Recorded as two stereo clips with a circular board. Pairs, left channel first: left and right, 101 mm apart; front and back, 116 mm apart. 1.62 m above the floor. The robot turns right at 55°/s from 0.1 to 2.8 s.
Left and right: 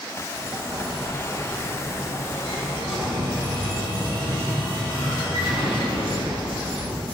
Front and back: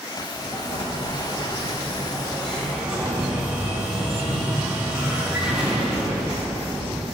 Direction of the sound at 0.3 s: 40° right.